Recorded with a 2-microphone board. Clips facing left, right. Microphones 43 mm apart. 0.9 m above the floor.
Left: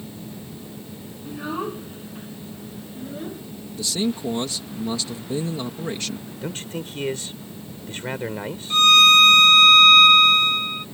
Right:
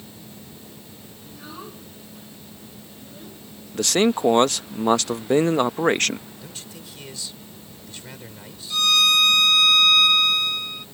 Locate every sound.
1.2 s a child speaking: 30° left (ahead or behind)
3.7 s a man speaking: 60° right (ahead or behind)
6.4 s a man speaking: 45° left (ahead or behind)
8.7 s a violin: 35° left (ahead or behind)